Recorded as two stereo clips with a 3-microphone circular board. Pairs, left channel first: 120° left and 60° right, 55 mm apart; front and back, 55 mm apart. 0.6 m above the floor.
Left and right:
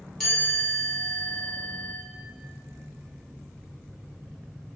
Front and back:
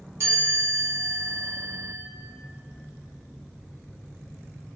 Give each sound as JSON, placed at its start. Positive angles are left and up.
{"t": 0.2, "sound": "a chime", "azimuth_deg": -155, "distance_m": 1.1}